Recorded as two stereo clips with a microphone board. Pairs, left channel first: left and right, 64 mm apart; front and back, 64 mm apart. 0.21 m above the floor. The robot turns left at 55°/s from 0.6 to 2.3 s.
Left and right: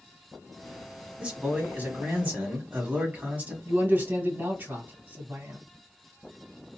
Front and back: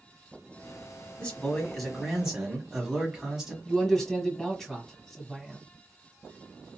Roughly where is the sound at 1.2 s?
Ahead right.